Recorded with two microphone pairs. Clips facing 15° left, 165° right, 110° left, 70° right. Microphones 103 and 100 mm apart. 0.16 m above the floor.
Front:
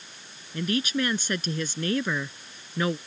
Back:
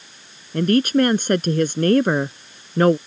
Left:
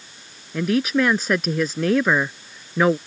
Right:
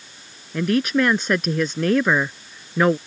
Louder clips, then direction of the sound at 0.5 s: Back 11 dB, even; 160° right.